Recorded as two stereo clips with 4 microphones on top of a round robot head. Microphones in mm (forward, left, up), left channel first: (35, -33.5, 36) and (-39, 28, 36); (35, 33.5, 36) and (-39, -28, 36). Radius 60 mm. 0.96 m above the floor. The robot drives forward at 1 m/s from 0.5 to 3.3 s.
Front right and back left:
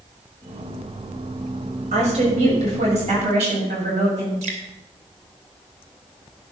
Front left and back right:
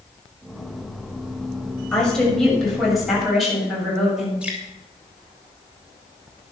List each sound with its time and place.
1.9 s a woman speaking: 120° left, 6.5 m; by 4.3 s 130° left, 7 m
4.4 s dripping: 140° left, 3 m